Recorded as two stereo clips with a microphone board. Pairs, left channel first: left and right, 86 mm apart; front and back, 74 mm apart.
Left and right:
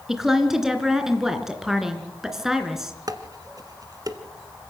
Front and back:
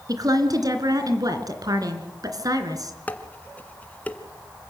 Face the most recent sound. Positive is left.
turn(degrees=-65)